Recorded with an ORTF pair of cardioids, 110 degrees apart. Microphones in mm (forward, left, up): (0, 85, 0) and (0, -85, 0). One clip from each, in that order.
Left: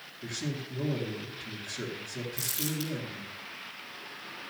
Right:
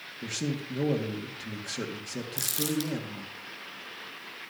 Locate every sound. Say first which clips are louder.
0.2 s a man speaking: right 3 dB; 70° right, 2.5 m
2.4 s crumpling: right 4 dB; 45° right, 3.5 m